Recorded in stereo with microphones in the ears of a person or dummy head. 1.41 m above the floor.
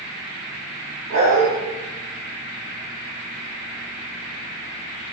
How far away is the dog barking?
About 3.5 m.